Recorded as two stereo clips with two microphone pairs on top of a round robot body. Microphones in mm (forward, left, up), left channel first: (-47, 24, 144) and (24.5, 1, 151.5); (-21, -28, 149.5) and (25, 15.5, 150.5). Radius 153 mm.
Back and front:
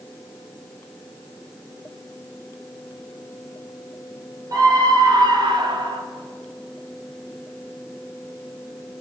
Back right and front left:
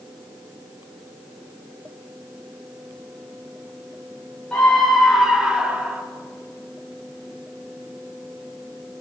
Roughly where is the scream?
Ahead right.